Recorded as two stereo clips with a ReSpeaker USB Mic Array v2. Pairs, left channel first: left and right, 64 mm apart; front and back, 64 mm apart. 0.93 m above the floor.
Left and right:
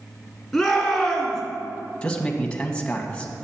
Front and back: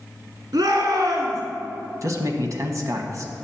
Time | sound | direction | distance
0.5 | a shout | 175° right | 1.9 m
2.0 | a man speaking | 160° left | 1.2 m